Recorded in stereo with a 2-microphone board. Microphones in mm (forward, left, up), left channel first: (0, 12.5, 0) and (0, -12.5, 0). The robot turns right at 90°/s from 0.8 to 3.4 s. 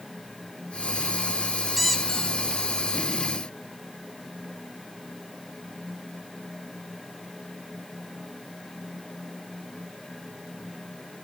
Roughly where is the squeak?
Ahead.